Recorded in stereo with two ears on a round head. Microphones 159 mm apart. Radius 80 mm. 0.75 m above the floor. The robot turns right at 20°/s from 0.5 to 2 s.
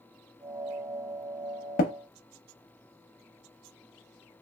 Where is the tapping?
55° left (ahead or behind), 0.6 m; by 1.9 s 50° left (ahead or behind), 0.6 m.